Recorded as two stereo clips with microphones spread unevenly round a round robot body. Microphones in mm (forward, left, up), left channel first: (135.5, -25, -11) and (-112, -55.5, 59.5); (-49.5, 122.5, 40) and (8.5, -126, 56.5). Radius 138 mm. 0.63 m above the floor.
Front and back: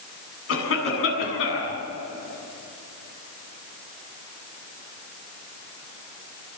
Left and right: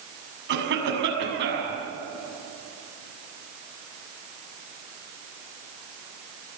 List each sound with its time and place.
0.5 s a cough: 25° right, 7 m